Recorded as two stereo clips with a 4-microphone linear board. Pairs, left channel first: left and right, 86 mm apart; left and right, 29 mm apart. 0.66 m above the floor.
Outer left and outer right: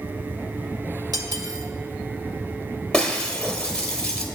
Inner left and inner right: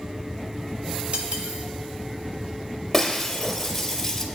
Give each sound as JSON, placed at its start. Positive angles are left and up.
{"t": 1.1, "sound": "cutlery clinking", "side_deg": -50, "distance_m": 1.1}
{"t": 2.9, "sound": "breaking glass", "side_deg": 10, "distance_m": 1.6}